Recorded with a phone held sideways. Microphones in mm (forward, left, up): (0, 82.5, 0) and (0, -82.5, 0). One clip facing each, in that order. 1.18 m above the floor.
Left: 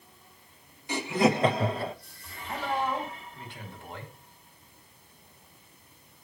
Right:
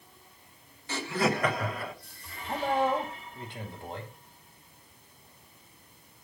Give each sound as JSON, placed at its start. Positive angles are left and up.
{"t": 0.9, "sound": "laughter", "side_deg": 15, "distance_m": 1.2}
{"t": 2.5, "sound": "a man speaking", "side_deg": -45, "distance_m": 1.8}